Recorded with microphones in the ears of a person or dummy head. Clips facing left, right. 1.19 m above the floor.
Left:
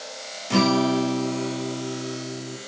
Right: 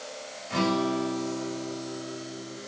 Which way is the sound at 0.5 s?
75° left (ahead or behind).